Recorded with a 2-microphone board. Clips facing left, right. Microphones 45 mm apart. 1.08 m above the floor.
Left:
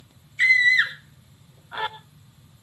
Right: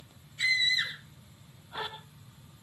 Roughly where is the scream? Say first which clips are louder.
Left 11 dB; left.